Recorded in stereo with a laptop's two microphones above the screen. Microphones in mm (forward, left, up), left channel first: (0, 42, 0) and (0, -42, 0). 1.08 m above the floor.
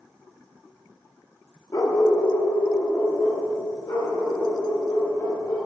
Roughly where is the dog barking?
Left.